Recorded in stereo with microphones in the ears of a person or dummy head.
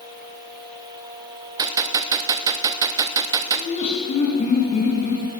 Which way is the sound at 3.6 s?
35° left (ahead or behind).